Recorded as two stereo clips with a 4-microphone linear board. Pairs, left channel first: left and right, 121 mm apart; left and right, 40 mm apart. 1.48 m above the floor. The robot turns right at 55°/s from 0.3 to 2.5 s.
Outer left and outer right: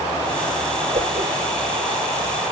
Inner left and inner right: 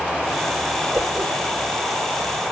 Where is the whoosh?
85° right, 7 m; by 1.3 s 75° right (ahead or behind), 7 m.